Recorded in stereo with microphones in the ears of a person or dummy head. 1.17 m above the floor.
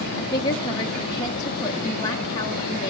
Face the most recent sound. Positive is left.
turn(degrees=15)  # may be behind; listen again after turning